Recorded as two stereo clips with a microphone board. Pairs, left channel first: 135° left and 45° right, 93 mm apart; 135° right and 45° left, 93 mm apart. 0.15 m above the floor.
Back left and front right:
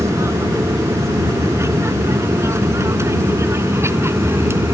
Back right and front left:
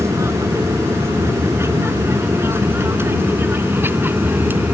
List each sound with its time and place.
0.0 s an aircraft: straight ahead; by 4.8 s 10° right